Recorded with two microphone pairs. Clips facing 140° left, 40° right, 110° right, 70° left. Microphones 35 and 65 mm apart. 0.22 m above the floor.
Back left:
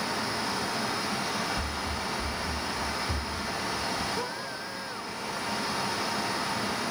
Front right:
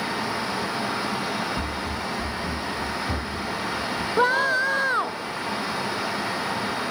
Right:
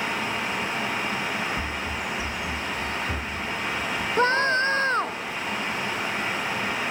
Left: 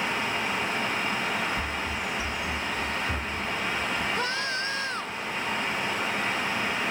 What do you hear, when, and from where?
1.6 s running footsteps: 30° right; by 4.1 s 15° right
4.2 s a scream: 55° right